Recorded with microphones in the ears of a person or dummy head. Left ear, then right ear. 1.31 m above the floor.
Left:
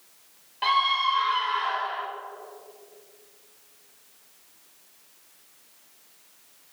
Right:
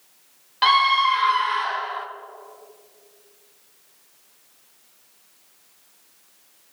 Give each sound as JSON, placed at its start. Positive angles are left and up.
{"t": 0.6, "sound": "a scream", "side_deg": -55, "distance_m": 1.3}